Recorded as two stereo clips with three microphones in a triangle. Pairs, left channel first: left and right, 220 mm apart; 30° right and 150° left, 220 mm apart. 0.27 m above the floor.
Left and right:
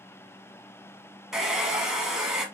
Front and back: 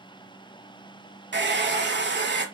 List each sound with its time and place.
1.3 s a hair dryer: 175° right, 0.9 m